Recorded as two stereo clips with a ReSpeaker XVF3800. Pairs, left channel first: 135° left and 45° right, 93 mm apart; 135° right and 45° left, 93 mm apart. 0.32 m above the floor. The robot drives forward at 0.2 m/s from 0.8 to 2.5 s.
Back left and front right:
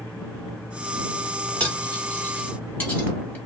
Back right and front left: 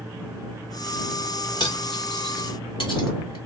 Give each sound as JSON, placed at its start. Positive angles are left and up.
{"t": 1.6, "sound": "cutlery clinking", "azimuth_deg": -155, "distance_m": 1.2}